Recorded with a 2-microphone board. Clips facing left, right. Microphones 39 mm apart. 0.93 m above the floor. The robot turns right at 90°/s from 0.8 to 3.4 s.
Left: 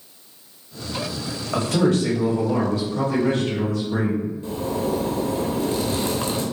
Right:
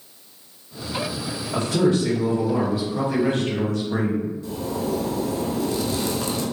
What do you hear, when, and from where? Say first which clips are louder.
1.5 s a man speaking: even; 75° left, 1.6 m; by 4.3 s 115° right, 1.6 m
4.4 s a zipper: left 2 dB; 35° left (ahead or behind), 0.7 m